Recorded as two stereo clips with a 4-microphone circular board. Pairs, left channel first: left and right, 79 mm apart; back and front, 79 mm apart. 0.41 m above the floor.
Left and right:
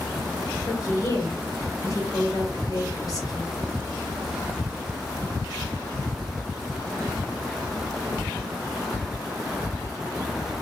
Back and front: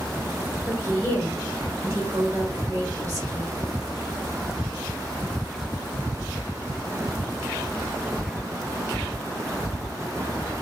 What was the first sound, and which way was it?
A woman speaking, 60° left.